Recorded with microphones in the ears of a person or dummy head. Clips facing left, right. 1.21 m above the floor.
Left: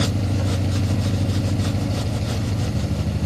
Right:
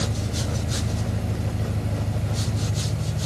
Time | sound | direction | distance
0.0 | an engine running | 55° left (ahead or behind) | 1.4 m